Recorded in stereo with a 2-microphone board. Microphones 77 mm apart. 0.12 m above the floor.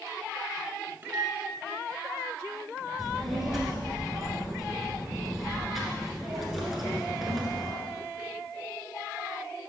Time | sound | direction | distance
1.0 | a microwave | 30° right (ahead or behind) | 1.0 m
3.0 | a child speaking | centre (ahead or behind) | 1.3 m